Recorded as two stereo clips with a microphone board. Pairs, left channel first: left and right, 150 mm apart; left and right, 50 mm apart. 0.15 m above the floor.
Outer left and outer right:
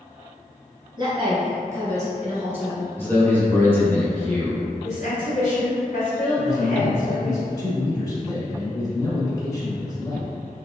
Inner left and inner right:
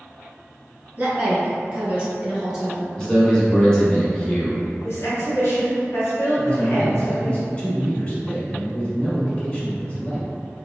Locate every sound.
1.0 s a woman speaking: 25° right (ahead or behind), 2.0 m; by 2.9 s 5° right (ahead or behind), 1.3 m
3.0 s a man speaking: 15° left (ahead or behind), 1.1 m
4.8 s a woman speaking: 50° left (ahead or behind), 1.5 m
6.4 s a man speaking: 25° left (ahead or behind), 1.0 m